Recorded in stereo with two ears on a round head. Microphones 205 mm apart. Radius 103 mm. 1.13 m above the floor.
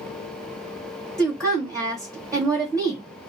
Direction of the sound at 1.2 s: 15° right (ahead or behind).